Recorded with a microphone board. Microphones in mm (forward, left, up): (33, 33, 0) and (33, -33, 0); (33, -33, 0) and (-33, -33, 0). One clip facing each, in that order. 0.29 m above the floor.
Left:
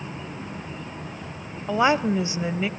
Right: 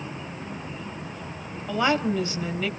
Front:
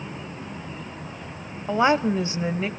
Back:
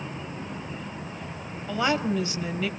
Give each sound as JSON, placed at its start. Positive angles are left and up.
{"t": 1.7, "sound": "a woman speaking", "azimuth_deg": 35, "distance_m": 1.3}